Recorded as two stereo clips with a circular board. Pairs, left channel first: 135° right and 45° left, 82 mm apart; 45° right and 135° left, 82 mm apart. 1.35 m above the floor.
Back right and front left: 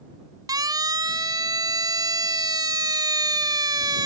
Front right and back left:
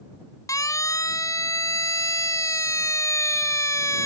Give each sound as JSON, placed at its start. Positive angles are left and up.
{"t": 0.5, "sound": "a siren", "azimuth_deg": 5}